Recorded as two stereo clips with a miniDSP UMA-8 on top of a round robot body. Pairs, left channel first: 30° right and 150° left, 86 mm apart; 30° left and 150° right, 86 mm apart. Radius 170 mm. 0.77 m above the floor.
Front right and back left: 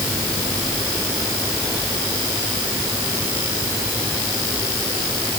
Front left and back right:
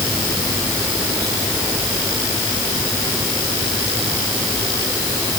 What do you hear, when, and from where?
Only background noise.